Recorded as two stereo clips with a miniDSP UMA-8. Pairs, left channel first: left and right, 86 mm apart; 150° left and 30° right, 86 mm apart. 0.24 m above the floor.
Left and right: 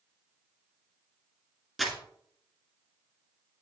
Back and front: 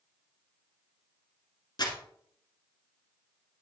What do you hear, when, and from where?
1.8 s crumpling: straight behind, 1.7 m